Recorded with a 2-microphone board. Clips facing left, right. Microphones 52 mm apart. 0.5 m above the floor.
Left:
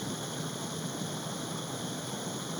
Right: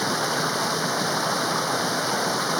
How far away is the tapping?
No tapping in this recording.